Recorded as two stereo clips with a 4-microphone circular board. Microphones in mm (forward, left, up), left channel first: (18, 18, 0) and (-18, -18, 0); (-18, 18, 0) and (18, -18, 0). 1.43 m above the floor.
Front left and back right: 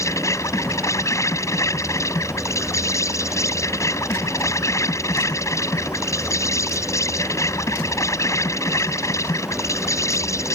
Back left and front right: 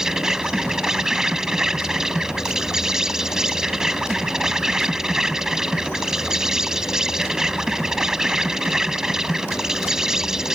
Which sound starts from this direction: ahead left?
An insect, at 0.0 s.